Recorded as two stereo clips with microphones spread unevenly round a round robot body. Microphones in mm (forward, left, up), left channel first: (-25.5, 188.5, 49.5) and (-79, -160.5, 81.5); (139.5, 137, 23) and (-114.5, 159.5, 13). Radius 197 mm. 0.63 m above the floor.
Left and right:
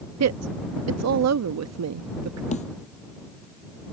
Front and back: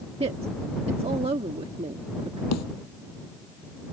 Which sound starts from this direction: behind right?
A woman speaking, at 0.2 s.